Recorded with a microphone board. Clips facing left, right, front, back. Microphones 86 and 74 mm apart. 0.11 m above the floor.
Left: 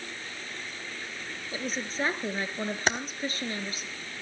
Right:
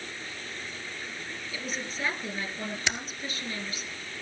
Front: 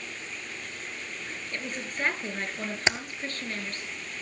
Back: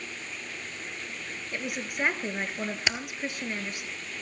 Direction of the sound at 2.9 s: 60° left.